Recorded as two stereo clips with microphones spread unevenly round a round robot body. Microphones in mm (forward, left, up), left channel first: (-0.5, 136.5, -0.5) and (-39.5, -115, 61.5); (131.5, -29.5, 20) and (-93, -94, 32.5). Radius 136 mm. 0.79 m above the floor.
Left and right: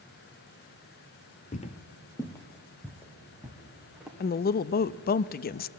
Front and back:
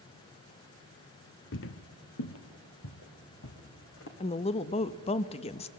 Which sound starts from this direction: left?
A woman speaking, at 4.2 s.